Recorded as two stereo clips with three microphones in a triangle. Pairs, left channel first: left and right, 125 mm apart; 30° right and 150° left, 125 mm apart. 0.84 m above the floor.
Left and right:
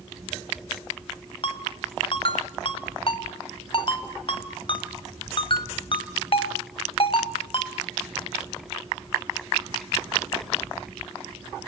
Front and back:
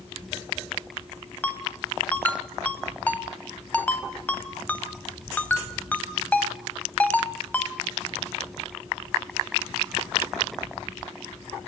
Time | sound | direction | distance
1.4 | a ringtone | 45° left | 1.9 m